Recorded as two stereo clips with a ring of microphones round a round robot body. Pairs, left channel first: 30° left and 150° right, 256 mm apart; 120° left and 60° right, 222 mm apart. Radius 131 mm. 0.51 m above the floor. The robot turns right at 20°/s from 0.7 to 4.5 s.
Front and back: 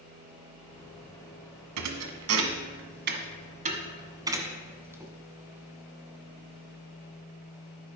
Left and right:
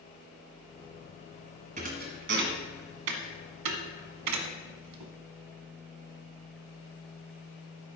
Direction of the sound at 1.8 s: 125° right.